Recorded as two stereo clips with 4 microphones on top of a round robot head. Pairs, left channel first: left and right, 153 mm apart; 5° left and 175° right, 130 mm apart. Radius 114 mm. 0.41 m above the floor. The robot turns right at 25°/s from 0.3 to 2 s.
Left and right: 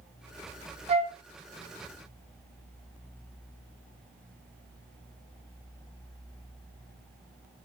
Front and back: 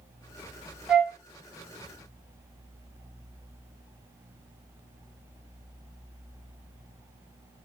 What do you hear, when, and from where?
0.9 s a flute: 95° right, 0.8 m; by 1.2 s 90° right, 0.8 m